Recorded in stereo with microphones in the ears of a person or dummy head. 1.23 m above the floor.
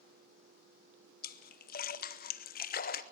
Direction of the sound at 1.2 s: 40° left (ahead or behind).